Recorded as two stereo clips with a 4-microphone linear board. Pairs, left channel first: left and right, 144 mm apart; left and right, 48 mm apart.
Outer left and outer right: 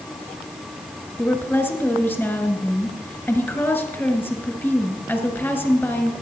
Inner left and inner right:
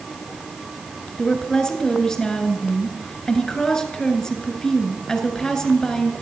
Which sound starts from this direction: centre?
A woman speaking, at 1.2 s.